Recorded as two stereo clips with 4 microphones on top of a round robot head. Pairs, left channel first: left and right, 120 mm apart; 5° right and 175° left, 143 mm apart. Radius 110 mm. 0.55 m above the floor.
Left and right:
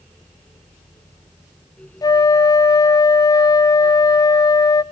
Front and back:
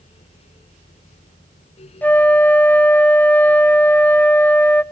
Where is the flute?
65° left, 0.5 m.